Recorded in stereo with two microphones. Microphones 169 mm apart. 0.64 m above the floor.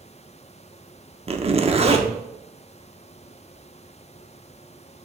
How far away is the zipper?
About 0.7 m.